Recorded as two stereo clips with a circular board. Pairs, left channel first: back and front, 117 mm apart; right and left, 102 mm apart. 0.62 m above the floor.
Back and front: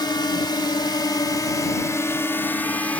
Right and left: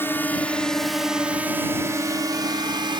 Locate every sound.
0.0 s a drone: 145° right; by 3.0 s 105° left